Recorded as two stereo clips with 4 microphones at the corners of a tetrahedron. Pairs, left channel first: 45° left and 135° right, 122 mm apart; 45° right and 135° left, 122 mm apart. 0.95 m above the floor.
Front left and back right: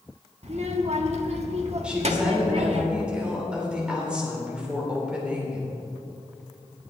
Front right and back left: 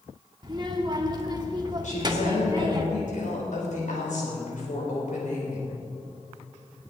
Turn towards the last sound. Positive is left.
turn(degrees=-55)